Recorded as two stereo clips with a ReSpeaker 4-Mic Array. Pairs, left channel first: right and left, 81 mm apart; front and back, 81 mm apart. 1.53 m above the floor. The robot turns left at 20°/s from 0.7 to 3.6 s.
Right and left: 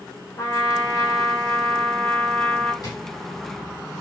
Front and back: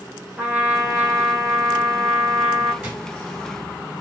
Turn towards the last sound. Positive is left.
turn(degrees=-125)